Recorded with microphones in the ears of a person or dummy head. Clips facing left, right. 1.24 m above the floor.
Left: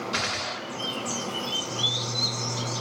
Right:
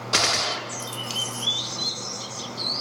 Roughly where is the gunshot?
Right.